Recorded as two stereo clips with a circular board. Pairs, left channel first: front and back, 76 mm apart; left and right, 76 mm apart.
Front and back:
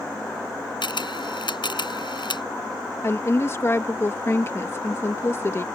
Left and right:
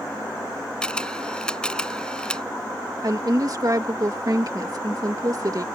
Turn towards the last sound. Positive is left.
turn(degrees=-55)